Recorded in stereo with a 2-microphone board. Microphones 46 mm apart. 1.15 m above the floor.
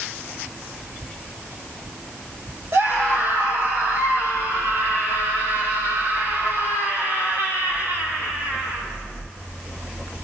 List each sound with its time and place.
2.7 s a scream: 65° right (ahead or behind), 6 m; by 8.8 s 55° right (ahead or behind), 9 m